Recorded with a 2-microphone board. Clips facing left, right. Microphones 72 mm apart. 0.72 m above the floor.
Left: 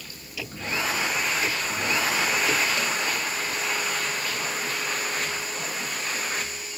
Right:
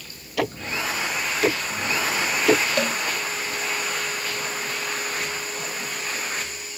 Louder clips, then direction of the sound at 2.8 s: Right 4 dB; 65° right (ahead or behind).